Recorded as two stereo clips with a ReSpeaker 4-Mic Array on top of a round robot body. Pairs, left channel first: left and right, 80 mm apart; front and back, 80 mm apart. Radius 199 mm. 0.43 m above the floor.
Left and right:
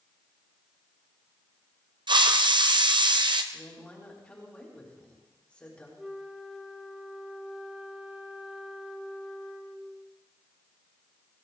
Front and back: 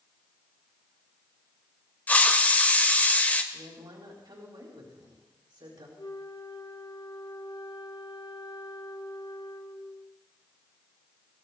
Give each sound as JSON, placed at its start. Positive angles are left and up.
{"t": 2.1, "sound": "a hiss", "azimuth_deg": -70, "distance_m": 1.4}
{"t": 3.5, "sound": "a woman speaking", "azimuth_deg": 165, "distance_m": 4.5}
{"t": 6.0, "sound": "a flute", "azimuth_deg": -5, "distance_m": 1.7}